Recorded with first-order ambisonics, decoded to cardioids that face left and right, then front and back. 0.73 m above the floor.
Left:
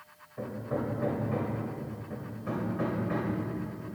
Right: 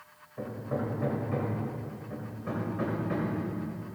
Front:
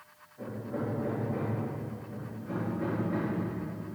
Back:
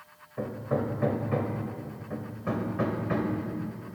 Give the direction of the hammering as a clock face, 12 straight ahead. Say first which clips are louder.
Even, back 6 dB; 6 o'clock.